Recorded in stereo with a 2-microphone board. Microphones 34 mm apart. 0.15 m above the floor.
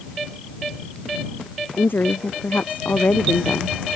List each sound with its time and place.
1.8 s a woman speaking: 65° left (ahead or behind)